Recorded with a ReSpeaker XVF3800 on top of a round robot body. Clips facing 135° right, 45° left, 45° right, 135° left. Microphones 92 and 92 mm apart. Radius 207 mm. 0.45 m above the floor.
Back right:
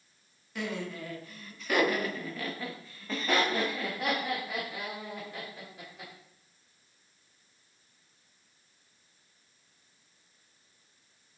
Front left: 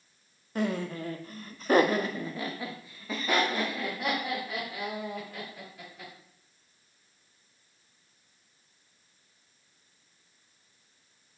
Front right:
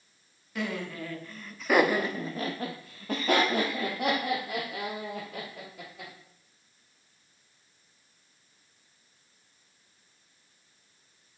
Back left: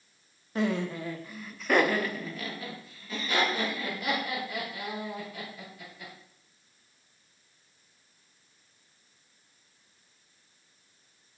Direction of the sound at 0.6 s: 85° left.